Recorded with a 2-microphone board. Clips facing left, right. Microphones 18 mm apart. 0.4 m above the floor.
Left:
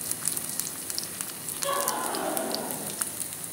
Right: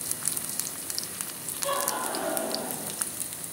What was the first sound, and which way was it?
Laughter, 40° left (ahead or behind).